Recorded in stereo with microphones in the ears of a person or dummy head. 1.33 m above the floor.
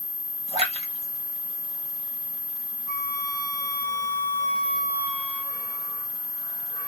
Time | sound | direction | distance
0.5 | a splash | 25° right (ahead or behind) | 1.4 m
2.9 | a flute | 30° right (ahead or behind) | 1.6 m